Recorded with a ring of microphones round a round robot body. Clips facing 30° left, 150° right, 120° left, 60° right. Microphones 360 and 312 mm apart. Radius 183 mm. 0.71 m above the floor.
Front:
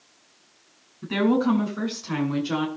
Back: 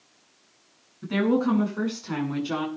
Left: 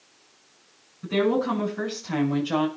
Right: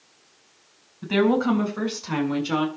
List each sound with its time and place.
1.0 s a woman speaking: 60° right, 6 m; by 2.7 s 70° right, 6 m